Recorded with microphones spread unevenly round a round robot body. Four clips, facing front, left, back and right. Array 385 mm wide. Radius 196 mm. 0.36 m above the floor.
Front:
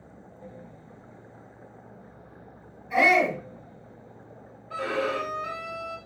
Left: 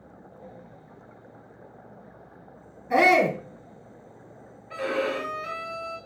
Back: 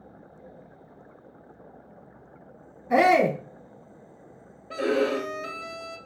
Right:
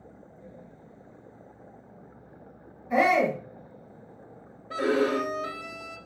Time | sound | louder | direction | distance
2.9 | a shout | left 3 dB, back 3 dB | 150° left | 4.5 m
4.7 | a violin | right 3 dB, back 4 dB | 130° right | 1.8 m